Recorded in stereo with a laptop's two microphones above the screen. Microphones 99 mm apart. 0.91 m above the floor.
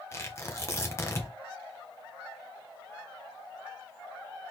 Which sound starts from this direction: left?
Tearing paper, at 0.1 s.